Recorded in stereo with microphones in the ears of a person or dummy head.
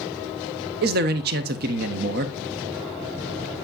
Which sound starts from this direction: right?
A man speaking, at 0.8 s.